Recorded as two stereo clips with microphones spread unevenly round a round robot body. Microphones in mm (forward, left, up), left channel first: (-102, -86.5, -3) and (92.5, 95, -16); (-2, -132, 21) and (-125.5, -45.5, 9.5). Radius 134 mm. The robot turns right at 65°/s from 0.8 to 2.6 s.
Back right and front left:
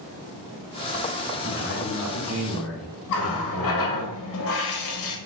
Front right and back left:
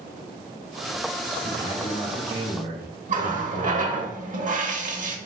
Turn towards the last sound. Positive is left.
turn(degrees=180)